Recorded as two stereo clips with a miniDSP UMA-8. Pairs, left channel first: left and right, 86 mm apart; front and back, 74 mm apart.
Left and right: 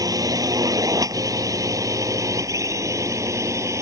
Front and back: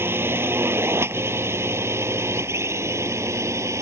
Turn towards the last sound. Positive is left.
turn(degrees=-135)